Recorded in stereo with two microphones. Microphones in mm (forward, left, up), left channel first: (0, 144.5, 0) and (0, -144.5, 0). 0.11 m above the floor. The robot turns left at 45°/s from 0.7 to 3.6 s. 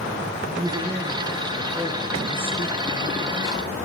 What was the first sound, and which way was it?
A man speaking, 15° right (ahead or behind).